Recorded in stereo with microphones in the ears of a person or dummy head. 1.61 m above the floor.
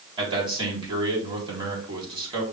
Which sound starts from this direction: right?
A man speaking, at 0.2 s.